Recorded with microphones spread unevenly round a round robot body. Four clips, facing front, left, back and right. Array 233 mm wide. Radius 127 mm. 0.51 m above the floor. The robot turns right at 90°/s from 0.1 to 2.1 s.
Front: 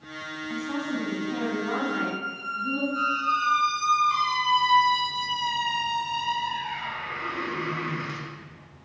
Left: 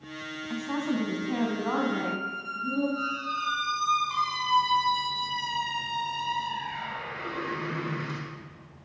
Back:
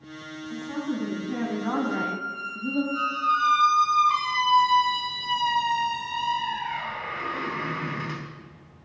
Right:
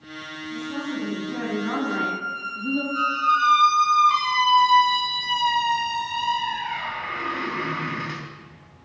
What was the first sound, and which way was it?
A woman speaking, 40° left.